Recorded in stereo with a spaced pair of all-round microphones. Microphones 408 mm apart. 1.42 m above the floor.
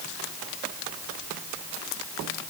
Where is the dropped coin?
No dropped coin in this recording.